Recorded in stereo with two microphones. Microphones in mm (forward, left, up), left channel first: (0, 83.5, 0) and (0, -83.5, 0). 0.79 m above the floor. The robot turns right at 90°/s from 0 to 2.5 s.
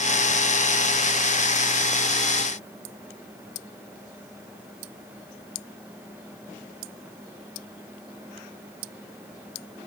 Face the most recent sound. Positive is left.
No sound to turn to.